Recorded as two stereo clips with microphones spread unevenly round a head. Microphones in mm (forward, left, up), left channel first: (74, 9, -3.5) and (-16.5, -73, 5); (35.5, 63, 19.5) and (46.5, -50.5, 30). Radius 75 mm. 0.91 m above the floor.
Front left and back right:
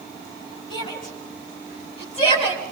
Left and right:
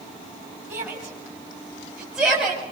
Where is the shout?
10° right, 6 m; by 2.6 s 5° left, 5 m.